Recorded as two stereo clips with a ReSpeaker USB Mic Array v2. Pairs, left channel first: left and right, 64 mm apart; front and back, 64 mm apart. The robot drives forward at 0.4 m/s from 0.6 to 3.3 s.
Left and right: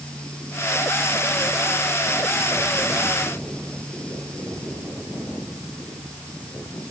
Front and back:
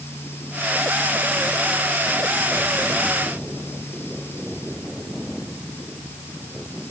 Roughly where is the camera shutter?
No camera shutter in this recording.